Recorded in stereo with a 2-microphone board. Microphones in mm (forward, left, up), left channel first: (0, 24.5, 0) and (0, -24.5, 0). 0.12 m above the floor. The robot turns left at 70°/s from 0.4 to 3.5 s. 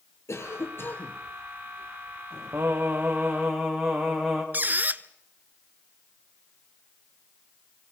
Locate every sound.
0.3 s a cough: 80° left, 3 m; by 1.2 s 25° left, 3 m
2.5 s singing: 110° right, 5 m; by 4.4 s 175° right, 5 m
4.5 s a squeak: 40° right (ahead or behind), 0.7 m